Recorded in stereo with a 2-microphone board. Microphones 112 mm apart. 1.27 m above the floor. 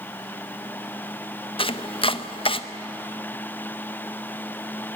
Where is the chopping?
55° left (ahead or behind), 0.7 m.